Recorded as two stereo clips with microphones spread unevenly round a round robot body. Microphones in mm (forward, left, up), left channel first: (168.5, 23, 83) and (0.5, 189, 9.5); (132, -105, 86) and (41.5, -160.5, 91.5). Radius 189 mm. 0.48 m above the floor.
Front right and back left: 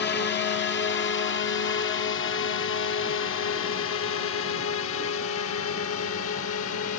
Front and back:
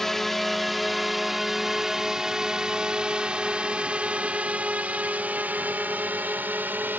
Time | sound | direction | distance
0.0 | a drone | 50° right | ?